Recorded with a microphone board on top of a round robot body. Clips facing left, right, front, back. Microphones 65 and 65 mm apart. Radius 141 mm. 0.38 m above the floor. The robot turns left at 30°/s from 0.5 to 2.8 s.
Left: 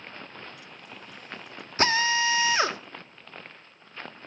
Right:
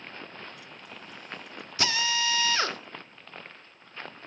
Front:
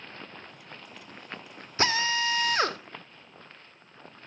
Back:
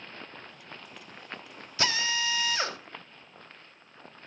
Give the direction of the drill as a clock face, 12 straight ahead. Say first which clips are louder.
Left 5 dB, front 3 dB; 11 o'clock.